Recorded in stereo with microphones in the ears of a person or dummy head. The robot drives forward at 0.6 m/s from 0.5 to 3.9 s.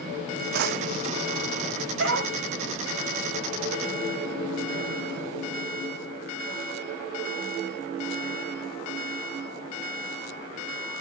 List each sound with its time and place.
0.5 s a drawer: 55° right (ahead or behind), 0.6 m; by 1.4 s 35° right (ahead or behind), 0.9 m
2.0 s a dog barking: 75° right (ahead or behind), 2.5 m